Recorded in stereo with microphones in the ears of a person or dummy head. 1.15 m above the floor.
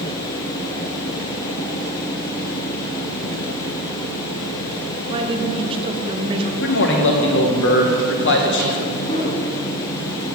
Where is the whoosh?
30° left (ahead or behind), 2 m.